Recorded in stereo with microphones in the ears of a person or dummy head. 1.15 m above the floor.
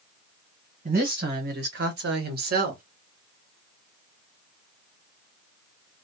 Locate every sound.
0.8 s a woman speaking: 35° right (ahead or behind), 1.1 m; by 2.8 s 50° right (ahead or behind), 0.9 m